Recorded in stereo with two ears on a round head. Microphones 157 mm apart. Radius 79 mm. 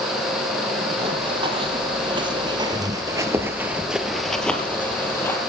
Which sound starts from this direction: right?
Running footsteps, at 1.0 s.